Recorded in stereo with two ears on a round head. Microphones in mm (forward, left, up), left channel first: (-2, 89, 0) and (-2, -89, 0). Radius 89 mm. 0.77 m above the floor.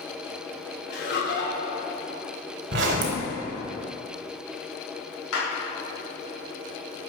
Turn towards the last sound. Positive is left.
turn(degrees=80)